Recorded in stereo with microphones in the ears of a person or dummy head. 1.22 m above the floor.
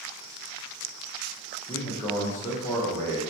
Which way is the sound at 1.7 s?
10° left (ahead or behind).